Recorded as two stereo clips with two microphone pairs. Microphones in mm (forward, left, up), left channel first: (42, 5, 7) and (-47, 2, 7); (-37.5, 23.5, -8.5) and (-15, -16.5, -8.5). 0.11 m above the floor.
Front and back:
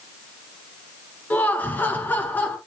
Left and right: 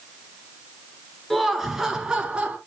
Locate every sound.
1.3 s laughter: 40° left, 1.4 m; by 2.6 s 40° right, 1.5 m